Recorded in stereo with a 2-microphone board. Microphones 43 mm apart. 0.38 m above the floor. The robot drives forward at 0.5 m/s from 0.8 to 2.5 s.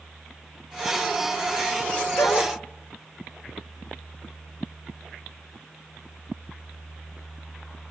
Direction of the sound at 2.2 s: 80° left.